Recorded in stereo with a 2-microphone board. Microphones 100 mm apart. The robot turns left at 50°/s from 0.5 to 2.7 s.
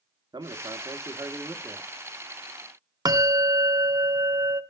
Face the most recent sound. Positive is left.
turn(degrees=-40)  # may be behind; listen again after turning